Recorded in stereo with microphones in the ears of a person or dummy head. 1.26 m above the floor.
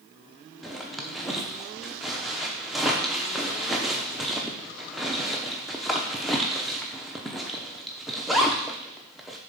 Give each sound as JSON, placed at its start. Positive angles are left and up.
{"t": 0.6, "sound": "a zipper", "side_deg": 0, "distance_m": 0.7}